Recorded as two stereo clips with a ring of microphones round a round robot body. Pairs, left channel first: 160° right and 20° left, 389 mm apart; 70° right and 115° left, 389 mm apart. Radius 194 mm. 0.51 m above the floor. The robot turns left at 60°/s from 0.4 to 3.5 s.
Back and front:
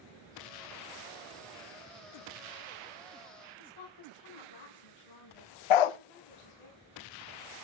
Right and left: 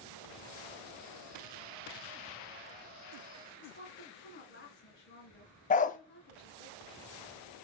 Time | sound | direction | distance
3.6 | a woman speaking | 130° right | 4.5 m
5.7 | a dog barking | 140° right | 0.6 m